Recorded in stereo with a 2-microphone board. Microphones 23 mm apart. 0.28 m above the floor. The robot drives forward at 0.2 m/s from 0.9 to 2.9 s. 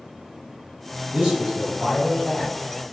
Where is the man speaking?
55° right (ahead or behind), 1.7 m.